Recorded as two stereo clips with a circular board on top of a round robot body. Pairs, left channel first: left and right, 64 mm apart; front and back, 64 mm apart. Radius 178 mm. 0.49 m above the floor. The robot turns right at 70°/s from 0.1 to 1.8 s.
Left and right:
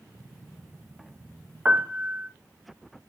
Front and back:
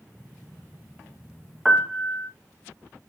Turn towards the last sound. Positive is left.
turn(degrees=-95)